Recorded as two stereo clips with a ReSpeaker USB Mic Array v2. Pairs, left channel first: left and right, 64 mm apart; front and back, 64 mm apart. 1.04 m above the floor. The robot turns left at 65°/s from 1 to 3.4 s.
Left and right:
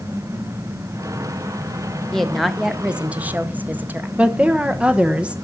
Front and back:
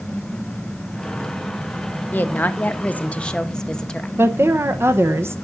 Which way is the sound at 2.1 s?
20° left.